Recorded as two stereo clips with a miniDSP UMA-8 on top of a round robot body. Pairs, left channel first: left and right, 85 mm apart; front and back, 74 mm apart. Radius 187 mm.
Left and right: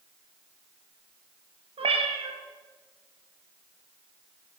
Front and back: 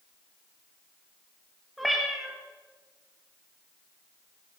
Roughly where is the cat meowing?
Right.